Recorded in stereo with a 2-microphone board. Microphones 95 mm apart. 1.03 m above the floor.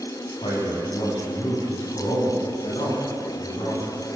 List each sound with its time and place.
0.4 s a man speaking: 75° left (ahead or behind), 7.5 m; by 4.0 s 85° left, 8.5 m